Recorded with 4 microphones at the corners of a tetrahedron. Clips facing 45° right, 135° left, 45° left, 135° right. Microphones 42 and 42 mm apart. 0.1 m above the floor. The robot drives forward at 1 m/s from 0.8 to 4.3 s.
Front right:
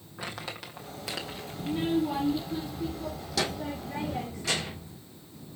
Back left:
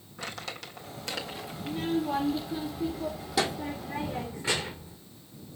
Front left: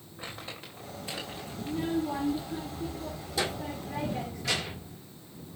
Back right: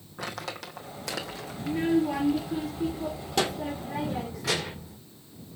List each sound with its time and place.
0.2 s crumpling: 120° right, 1.5 m; by 1.8 s 145° right, 2 m
1.6 s a child speaking: 110° right, 1.4 m; by 5.0 s 160° right, 3.5 m